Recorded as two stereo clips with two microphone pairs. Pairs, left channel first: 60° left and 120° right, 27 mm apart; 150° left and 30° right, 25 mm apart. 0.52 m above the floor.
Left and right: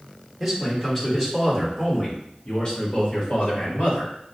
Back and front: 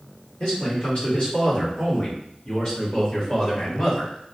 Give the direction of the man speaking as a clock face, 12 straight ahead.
7 o'clock.